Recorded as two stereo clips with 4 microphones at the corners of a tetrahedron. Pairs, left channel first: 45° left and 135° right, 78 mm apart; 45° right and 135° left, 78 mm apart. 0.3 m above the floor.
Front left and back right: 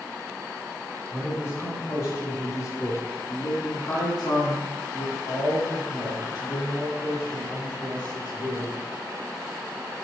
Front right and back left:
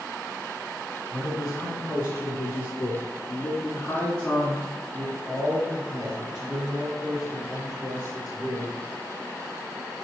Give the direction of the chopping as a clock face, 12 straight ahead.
No chopping in this recording.